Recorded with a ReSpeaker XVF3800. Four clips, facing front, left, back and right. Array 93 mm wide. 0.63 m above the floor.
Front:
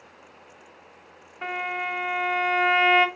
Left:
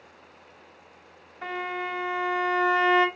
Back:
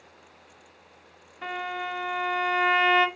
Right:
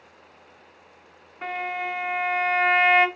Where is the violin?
45° right, 3 m.